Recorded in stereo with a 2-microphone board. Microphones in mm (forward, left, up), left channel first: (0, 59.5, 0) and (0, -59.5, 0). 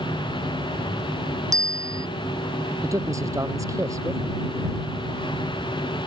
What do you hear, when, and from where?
1.5 s a bicycle bell: 30° right (ahead or behind)
2.8 s a man speaking: 25° right (ahead or behind)